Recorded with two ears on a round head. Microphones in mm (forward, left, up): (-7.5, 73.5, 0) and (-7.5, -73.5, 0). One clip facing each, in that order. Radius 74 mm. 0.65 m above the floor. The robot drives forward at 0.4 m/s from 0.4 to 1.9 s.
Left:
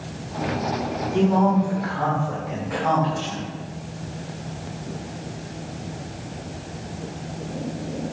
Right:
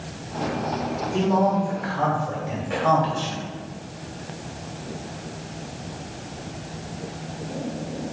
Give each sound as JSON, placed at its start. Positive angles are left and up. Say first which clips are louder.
{"t": 1.1, "sound": "a man speaking", "louder": "left 2 dB", "side_deg": -30, "distance_m": 2.0}